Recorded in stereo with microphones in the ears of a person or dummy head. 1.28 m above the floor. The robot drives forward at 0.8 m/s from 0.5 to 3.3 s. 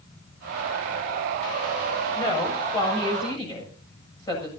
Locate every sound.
2.1 s a woman speaking: 30° left (ahead or behind), 6.5 m; by 4.5 s 25° left (ahead or behind), 7 m